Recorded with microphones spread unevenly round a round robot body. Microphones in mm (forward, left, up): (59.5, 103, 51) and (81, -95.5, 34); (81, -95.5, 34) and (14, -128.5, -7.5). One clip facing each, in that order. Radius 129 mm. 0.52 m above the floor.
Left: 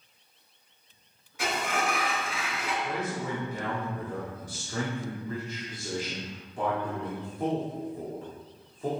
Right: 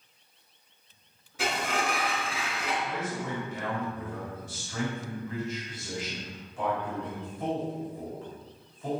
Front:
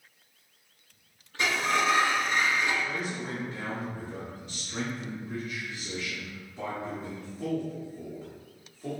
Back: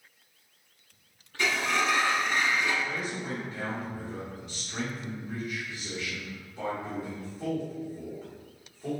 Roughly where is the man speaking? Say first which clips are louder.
Left 1 dB, even; behind left.